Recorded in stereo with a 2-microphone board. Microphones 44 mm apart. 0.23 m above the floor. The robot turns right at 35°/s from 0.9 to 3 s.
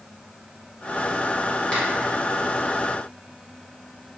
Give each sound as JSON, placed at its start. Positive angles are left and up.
{"t": 1.7, "sound": "a finger snap", "side_deg": 25, "distance_m": 1.8}